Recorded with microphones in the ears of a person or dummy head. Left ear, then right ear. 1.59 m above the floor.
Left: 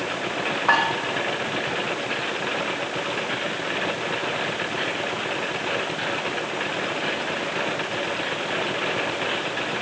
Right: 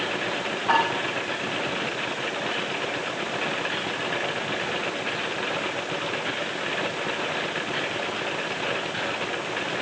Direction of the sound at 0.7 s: 80° left.